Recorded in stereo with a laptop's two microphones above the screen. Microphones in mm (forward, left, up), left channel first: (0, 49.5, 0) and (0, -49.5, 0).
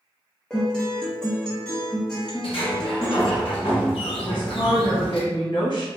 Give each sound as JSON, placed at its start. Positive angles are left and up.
{"t": 0.5, "sound": "a guitar", "side_deg": 10, "distance_m": 1.0}
{"t": 2.4, "sound": "a sliding door", "side_deg": 70, "distance_m": 1.4}
{"t": 4.2, "sound": "a woman speaking", "side_deg": 50, "distance_m": 1.1}